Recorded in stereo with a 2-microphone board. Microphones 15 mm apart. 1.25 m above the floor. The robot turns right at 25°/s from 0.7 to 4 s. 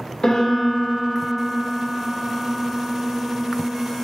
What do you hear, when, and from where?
0.2 s a piano: 65° left, 1.9 m; by 4.0 s 150° left, 1.9 m